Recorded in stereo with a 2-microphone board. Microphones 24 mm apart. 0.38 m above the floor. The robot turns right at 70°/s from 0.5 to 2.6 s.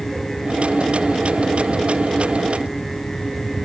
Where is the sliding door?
I don't hear a sliding door.